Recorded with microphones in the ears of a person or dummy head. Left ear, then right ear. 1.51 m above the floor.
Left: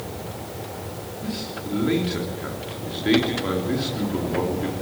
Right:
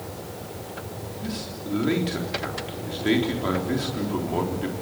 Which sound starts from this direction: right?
A man speaking, at 1.2 s.